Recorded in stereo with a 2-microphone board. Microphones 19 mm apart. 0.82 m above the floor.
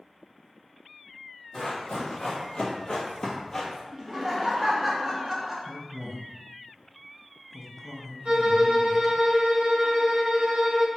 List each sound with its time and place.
1.5 s running footsteps: 65° left (ahead or behind), 1.7 m; by 3.8 s 10° left (ahead or behind), 1.1 m
3.9 s laughter: 5° right (ahead or behind), 0.7 m
5.7 s a man speaking: 15° right (ahead or behind), 0.5 m
8.2 s a violin: 75° right (ahead or behind), 0.8 m